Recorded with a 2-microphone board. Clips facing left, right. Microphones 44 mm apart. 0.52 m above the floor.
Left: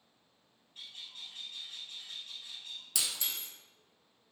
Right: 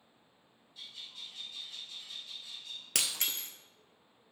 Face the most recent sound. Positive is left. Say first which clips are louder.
# right 2 dB
turn(degrees=-55)  # may be behind; listen again after turning